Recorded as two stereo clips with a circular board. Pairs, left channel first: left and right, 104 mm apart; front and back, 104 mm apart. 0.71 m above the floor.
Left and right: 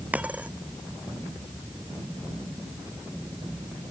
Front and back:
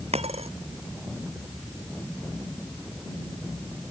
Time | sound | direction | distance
0.1 | a dropped coin | 165° right | ?